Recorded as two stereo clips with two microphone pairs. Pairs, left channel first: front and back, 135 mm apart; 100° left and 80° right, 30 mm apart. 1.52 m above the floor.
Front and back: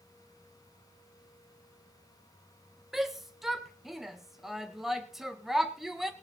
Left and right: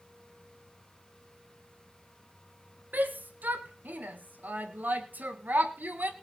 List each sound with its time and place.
2.9 s a shout: 90° right, 1.6 m